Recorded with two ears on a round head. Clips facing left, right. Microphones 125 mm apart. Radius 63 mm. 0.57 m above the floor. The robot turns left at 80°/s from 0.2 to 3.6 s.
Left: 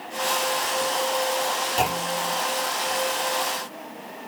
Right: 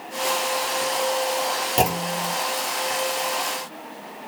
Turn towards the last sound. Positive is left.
turn(degrees=100)